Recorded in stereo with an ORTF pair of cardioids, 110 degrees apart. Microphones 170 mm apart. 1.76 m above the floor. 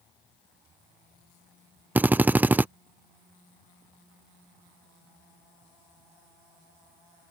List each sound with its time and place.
1.9 s a drill: 10° right